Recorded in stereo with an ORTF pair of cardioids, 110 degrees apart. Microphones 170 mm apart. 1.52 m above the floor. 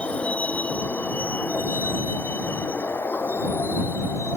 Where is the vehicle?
10° left; by 4.4 s 15° left.